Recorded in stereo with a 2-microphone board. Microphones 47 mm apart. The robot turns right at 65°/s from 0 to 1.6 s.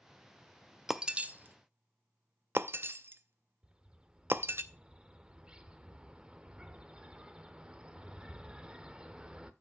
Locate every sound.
0.9 s breaking glass: 5° right (ahead or behind), 0.5 m; by 4.6 s 50° right (ahead or behind), 0.5 m
3.6 s a bird: 20° right (ahead or behind), 0.7 m